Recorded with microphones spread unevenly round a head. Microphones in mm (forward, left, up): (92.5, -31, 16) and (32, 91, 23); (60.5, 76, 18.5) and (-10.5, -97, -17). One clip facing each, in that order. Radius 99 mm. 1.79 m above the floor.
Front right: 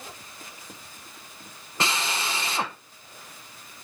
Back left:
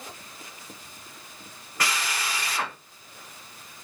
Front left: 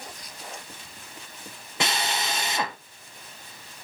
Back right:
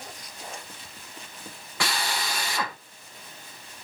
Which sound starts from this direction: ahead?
A drill, at 1.8 s.